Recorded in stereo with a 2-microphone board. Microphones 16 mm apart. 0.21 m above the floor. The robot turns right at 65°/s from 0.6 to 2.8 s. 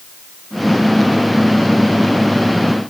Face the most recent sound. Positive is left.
No sound to turn to.